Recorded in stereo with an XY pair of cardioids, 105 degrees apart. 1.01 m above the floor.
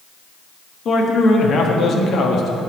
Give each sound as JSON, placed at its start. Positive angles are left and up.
{"t": 0.8, "sound": "a man speaking", "azimuth_deg": 55, "distance_m": 1.2}